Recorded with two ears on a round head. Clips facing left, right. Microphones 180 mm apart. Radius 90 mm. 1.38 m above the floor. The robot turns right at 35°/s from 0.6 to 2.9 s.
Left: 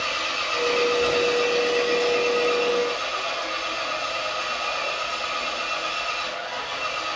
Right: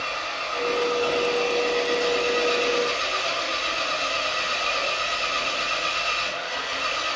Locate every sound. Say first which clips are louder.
0.0 s an engine running: left 1 dB; 135° left, 3.5 m; by 7.2 s 145° right, 3.5 m